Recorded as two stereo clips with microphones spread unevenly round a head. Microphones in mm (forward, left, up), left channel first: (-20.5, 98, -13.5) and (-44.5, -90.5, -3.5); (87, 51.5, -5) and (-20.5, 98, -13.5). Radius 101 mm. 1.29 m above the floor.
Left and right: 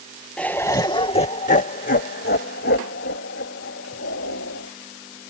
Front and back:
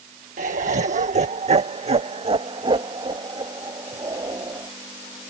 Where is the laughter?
165° left; by 4.7 s 100° left.